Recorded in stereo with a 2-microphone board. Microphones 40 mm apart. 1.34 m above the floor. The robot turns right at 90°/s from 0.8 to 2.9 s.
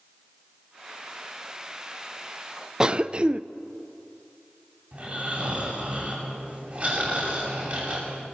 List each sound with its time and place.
2.8 s a cough: 15° right (ahead or behind), 0.6 m; by 3.4 s 25° right (ahead or behind), 0.6 m
4.9 s snoring: 35° right (ahead or behind), 8 m